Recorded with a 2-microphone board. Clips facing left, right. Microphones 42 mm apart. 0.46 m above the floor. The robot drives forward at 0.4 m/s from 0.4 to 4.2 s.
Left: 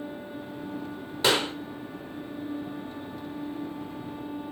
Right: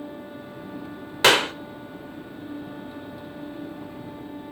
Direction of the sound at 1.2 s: 55° right (ahead or behind).